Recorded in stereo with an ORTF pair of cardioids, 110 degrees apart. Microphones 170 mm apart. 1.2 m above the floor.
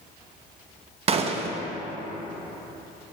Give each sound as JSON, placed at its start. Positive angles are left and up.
{"t": 1.1, "sound": "a gunshot", "azimuth_deg": -40, "distance_m": 0.8}